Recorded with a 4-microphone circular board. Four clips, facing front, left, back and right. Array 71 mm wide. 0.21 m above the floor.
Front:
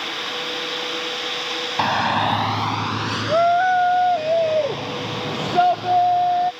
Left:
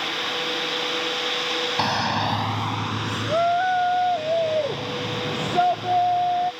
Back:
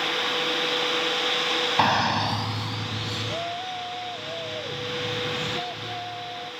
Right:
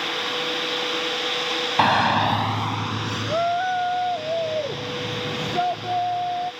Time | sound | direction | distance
1.8 | a shout | 100° right | ?